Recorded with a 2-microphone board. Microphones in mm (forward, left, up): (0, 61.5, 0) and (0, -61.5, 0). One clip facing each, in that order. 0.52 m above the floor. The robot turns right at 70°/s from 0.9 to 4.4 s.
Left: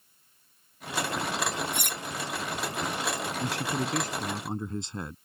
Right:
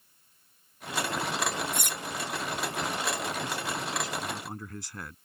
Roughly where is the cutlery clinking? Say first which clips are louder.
Even; left.